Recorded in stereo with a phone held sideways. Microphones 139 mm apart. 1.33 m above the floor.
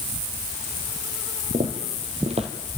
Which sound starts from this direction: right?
Footsteps, at 1.5 s.